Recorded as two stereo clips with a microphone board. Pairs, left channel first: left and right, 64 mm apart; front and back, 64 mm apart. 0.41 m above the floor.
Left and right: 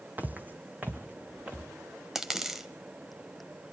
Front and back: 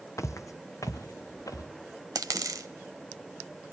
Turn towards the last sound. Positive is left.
turn(degrees=-175)